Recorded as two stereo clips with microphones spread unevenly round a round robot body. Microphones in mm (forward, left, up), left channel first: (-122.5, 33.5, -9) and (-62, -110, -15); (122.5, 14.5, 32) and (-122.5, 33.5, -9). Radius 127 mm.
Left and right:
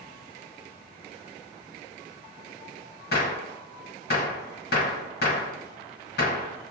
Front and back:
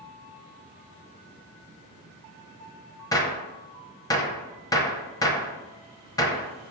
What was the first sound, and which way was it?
A gunshot, 75° left.